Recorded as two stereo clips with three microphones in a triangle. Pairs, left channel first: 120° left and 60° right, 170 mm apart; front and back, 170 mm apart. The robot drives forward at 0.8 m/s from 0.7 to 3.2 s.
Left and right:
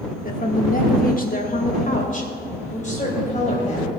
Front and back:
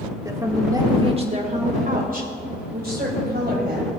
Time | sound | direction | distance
0.2 | a woman speaking | 115° left | 1.1 m